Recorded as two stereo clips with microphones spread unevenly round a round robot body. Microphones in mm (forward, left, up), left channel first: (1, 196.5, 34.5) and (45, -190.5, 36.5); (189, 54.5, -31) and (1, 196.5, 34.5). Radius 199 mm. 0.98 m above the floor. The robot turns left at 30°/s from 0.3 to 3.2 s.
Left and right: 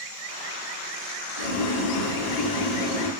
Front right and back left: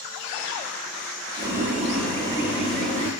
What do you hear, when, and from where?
1.4 s boiling: 70° left, 5.5 m; by 3.1 s 20° left, 5.5 m